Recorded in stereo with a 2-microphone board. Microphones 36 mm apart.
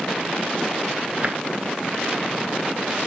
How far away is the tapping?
About 1.1 m.